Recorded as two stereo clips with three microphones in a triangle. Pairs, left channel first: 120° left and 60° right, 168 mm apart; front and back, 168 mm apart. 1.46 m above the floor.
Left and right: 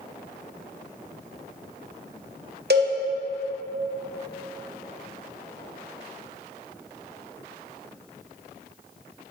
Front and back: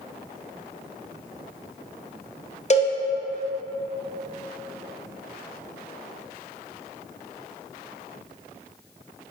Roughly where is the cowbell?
Ahead right.